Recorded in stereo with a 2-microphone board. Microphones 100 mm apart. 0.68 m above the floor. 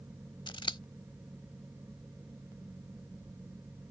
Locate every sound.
0.5 s scissors: 55° left (ahead or behind)